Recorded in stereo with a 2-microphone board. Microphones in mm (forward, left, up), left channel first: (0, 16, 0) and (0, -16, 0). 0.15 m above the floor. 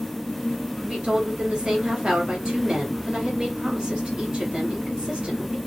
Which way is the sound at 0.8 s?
30° right (ahead or behind).